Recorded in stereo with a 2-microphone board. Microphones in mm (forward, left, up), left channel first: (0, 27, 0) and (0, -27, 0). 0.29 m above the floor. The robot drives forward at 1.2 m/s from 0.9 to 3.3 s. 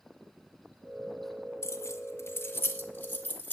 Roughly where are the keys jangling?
Left.